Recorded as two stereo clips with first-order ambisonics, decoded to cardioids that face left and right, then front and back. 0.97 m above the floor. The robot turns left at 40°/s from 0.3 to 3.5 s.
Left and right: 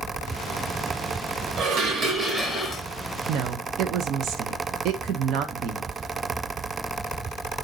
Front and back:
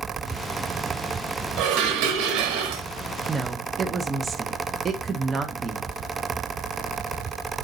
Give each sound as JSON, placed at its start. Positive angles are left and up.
{"t": 1.6, "sound": "dishes clattering", "azimuth_deg": -140, "distance_m": 0.9}
{"t": 3.3, "sound": "a woman speaking", "azimuth_deg": -105, "distance_m": 0.6}